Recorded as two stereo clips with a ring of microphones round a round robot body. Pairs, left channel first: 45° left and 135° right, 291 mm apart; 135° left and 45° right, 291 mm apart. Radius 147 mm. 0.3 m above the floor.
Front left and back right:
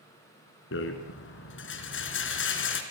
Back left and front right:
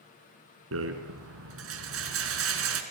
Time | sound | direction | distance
0.7 | a rattle | 5° right | 3 m